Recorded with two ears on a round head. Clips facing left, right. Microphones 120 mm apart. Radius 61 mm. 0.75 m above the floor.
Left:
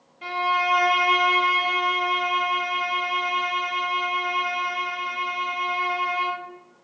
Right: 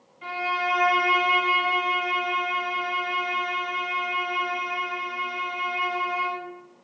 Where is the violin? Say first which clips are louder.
Left 4 dB; 45° left (ahead or behind), 0.9 m.